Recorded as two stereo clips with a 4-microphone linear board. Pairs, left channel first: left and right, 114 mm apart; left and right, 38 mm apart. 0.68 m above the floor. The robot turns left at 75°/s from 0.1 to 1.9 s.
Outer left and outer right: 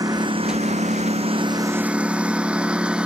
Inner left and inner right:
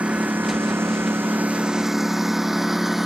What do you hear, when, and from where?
0.0 s a lawn mower: 35° right (ahead or behind); by 3.1 s 10° right (ahead or behind)